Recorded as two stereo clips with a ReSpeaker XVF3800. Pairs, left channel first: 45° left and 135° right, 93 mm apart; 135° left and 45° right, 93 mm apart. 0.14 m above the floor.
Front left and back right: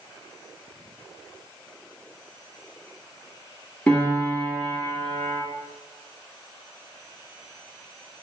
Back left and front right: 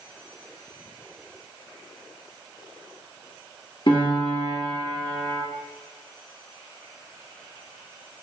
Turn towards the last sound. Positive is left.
turn(degrees=115)